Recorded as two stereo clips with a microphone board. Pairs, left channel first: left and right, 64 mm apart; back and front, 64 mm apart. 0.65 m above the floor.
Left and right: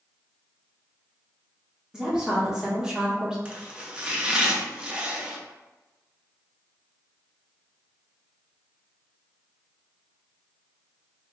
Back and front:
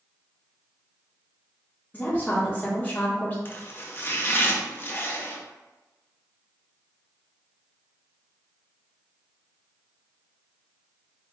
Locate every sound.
1.9 s a woman speaking: 155° right, 1.2 m
3.5 s chopping: 155° right, 0.6 m